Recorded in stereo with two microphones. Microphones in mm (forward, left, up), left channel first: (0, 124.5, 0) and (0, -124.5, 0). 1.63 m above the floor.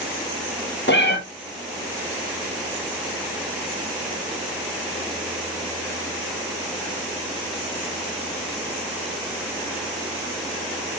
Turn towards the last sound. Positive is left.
turn(degrees=45)  # may be behind; listen again after turning